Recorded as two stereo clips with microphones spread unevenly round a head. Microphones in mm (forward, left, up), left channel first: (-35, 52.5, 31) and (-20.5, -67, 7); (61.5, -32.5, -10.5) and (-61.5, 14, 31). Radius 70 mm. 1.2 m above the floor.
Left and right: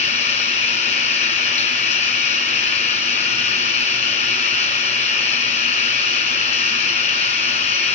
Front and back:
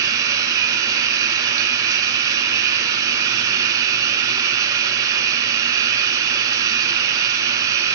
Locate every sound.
0.0 s running water: 105° left, 2.0 m